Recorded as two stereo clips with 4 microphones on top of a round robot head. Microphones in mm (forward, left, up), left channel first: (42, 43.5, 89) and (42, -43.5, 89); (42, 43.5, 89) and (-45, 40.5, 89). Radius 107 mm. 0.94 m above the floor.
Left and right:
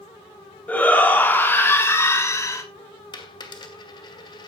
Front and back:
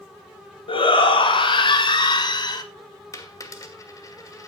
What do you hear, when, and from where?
0.7 s a shout: 20° left, 3 m; by 2.6 s 40° left, 2.5 m
3.1 s a dropped coin: 55° left, 2.5 m